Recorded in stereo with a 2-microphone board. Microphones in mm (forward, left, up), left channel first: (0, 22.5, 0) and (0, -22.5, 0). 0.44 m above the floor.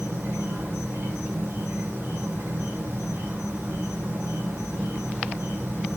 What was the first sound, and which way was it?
An insect, 60° right (ahead or behind).